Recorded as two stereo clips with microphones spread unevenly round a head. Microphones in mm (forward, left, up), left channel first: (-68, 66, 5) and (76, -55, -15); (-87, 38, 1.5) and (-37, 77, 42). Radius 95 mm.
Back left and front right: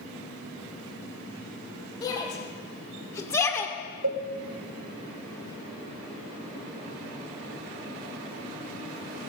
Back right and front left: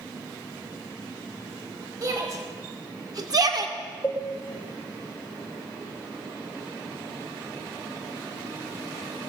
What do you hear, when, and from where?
2.0 s a shout: 70° left, 4 m; by 3.8 s 60° left, 1.7 m
4.0 s a cowbell: 65° right, 2.5 m